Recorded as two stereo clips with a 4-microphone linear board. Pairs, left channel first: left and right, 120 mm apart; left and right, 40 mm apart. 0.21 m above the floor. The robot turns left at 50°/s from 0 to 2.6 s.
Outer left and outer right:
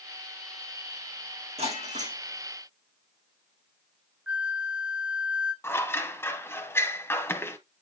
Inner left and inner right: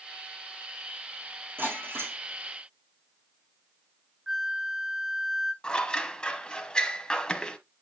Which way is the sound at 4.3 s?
10° right (ahead or behind).